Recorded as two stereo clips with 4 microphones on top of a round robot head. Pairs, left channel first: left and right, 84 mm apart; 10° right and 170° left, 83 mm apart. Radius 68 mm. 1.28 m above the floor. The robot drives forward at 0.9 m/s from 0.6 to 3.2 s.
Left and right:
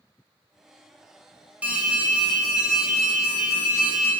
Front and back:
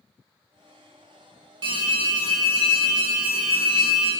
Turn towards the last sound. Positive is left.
turn(degrees=-170)